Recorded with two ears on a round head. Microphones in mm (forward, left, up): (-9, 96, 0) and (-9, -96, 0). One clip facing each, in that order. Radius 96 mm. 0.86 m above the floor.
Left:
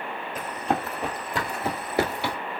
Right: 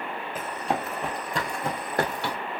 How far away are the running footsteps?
About 1.6 m.